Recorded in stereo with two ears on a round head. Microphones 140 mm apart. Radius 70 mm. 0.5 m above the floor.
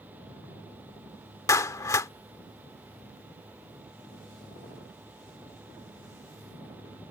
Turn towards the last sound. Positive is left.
turn(degrees=20)  # may be behind; listen again after turning